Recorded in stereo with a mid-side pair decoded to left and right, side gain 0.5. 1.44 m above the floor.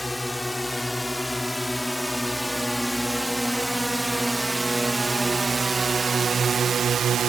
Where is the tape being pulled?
I don't hear tape being pulled.